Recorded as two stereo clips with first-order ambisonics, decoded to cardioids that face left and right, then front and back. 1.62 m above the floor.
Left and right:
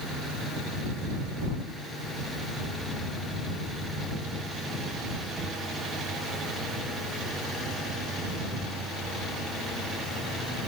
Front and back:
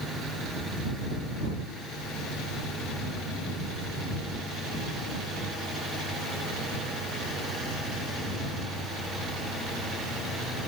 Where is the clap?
I don't hear a clap.